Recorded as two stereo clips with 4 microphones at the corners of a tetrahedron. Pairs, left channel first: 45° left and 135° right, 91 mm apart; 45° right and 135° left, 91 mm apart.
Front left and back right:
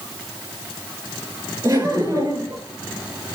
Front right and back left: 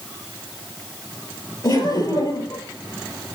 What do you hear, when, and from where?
1.6 s laughter: 80° right, 4.5 m